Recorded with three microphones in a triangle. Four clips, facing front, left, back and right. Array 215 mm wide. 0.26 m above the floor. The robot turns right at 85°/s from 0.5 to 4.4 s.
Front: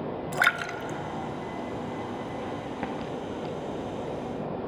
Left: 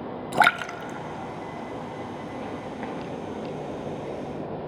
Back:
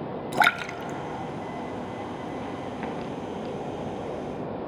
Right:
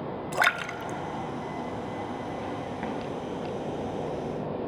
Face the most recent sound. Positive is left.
turn(degrees=95)